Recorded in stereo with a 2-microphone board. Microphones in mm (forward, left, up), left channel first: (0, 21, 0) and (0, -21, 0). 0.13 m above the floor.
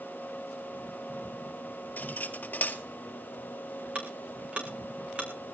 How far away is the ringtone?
No ringtone in this recording.